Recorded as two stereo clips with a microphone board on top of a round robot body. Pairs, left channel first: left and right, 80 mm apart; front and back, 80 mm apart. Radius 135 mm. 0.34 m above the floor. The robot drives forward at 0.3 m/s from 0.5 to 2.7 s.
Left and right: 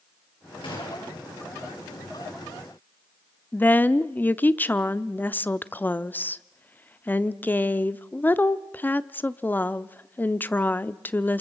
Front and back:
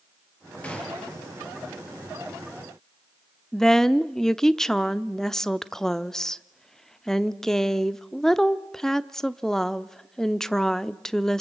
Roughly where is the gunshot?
Left.